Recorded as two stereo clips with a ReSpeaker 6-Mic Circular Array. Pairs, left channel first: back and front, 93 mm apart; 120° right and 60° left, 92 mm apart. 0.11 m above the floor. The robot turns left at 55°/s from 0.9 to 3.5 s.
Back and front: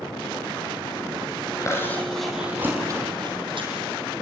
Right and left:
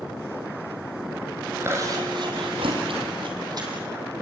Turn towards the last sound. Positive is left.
turn(degrees=20)